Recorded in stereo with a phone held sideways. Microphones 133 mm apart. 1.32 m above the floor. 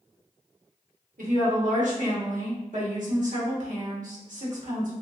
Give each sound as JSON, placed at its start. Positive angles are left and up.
{"t": 1.2, "sound": "a woman speaking", "side_deg": -75, "distance_m": 1.1}